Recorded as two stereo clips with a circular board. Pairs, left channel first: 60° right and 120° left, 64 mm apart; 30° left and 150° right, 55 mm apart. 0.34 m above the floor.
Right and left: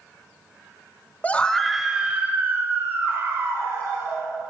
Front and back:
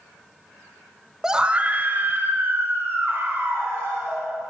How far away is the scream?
About 0.9 m.